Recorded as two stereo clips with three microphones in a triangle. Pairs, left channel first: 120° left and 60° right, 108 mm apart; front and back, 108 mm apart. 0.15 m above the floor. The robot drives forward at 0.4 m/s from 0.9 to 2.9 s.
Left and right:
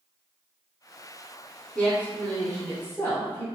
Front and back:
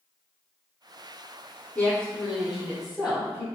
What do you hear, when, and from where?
1.8 s a woman speaking: 55° left, 1.1 m; by 3.5 s 115° left, 1.1 m